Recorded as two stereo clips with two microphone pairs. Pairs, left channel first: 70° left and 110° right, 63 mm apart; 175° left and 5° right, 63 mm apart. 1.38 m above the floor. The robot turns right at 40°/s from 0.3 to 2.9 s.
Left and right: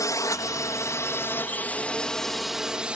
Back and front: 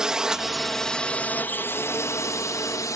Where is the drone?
75° left; by 3.0 s 175° left.